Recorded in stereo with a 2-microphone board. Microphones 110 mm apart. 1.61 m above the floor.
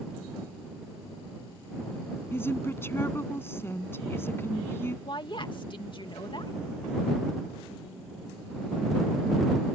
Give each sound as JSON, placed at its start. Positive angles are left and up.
{"t": 2.3, "sound": "a woman speaking", "side_deg": 20}
{"t": 5.0, "sound": "a woman speaking", "side_deg": 45}